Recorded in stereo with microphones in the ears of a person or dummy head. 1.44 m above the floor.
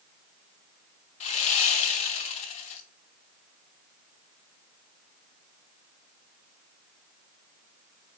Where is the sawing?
40° left (ahead or behind), 1.2 m.